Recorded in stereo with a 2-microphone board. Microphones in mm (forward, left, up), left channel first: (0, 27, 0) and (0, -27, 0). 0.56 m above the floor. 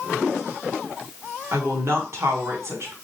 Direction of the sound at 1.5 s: 60° right (ahead or behind).